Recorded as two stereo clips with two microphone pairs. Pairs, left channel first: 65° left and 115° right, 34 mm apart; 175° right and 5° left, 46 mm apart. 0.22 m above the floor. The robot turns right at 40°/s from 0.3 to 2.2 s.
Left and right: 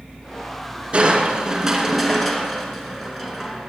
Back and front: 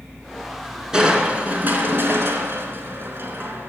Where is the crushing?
70° right, 2.5 m; by 3.7 s 20° right, 2.5 m.